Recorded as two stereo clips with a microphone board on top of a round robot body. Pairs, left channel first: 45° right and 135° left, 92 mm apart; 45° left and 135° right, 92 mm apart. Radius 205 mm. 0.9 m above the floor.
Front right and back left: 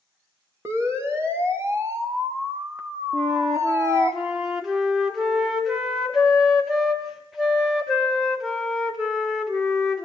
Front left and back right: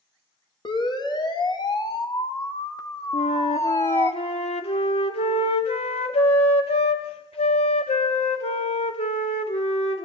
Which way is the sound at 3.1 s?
45° left.